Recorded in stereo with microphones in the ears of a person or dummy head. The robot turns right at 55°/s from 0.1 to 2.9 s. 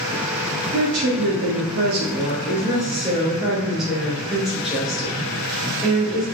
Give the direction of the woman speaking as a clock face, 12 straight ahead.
4 o'clock.